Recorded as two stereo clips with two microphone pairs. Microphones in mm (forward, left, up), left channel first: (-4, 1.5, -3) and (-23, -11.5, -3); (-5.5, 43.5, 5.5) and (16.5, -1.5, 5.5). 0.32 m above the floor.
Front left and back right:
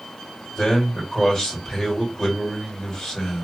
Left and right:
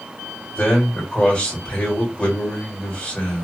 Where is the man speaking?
85° left, 1.6 m.